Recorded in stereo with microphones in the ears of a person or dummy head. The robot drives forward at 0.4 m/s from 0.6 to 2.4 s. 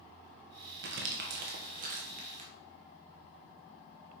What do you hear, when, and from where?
0.8 s crumpling: 55° right (ahead or behind), 0.9 m; by 2.5 s 35° right (ahead or behind), 1.3 m